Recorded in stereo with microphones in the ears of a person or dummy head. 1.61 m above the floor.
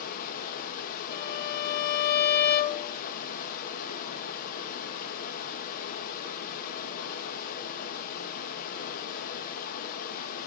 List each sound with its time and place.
0.0 s running water: 50° left (ahead or behind), 1.4 m
1.1 s a violin: 60° left (ahead or behind), 1.4 m